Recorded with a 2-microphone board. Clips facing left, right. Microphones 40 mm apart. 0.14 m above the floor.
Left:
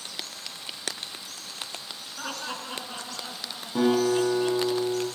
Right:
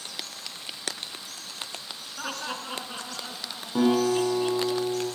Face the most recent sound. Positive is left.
turn(degrees=-15)  # may be behind; listen again after turning